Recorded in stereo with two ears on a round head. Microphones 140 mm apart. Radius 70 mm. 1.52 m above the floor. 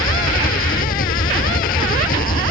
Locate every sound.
0.0 s an engine running: 60° left (ahead or behind)